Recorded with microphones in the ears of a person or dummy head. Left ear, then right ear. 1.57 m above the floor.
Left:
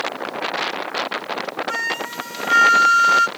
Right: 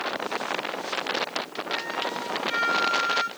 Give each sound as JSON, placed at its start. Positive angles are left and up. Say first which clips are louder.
{"t": 1.7, "sound": "a flute", "louder": "left 3 dB", "side_deg": 60, "distance_m": 0.6}